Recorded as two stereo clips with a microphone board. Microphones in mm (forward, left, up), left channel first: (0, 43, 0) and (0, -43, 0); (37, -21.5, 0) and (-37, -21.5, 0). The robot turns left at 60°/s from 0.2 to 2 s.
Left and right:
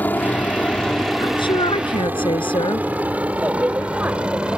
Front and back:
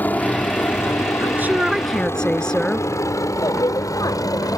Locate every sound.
0.0 s a helicopter: 40° left; by 4.6 s 15° right
1.2 s a woman speaking: 125° left; by 2.9 s 80° left
3.4 s a woman speaking: 20° right